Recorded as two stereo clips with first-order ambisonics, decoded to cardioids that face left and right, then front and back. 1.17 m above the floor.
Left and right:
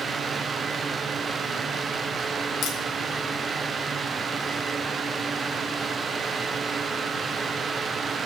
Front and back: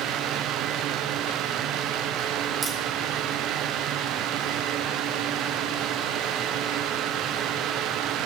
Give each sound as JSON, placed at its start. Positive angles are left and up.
{"t": 2.6, "sound": "a crack", "azimuth_deg": 120, "distance_m": 2.5}